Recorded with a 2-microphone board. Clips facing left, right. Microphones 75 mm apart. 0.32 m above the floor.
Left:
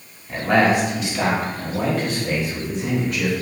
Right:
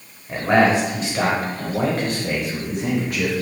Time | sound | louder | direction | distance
0.3 | a man speaking | right 1 dB | 25° right (ahead or behind) | 1.3 m